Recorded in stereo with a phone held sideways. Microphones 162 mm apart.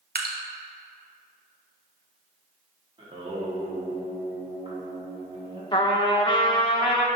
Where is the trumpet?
30° left (ahead or behind), 0.8 m.